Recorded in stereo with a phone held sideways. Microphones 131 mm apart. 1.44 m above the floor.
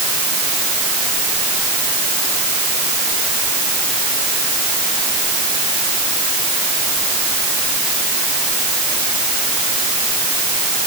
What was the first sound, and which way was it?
Only background noise.